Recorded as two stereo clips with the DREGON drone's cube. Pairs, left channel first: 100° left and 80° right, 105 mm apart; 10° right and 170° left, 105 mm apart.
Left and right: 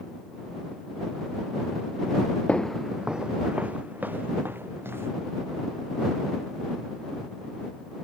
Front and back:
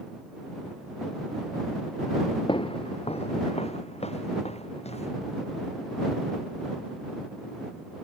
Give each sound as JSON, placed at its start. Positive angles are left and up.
{"t": 2.5, "sound": "footsteps", "azimuth_deg": 20}